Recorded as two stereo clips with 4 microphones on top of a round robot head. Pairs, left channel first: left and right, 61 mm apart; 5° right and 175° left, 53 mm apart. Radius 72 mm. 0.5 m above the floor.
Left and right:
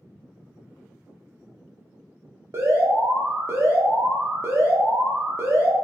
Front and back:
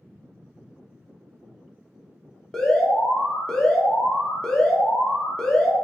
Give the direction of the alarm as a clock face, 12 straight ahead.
3 o'clock.